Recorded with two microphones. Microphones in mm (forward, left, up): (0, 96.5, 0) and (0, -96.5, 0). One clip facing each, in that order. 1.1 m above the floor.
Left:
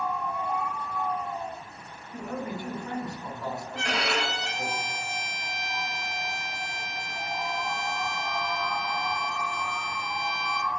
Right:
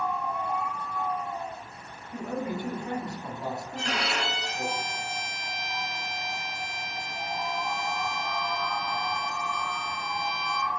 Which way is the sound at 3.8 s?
65° left (ahead or behind).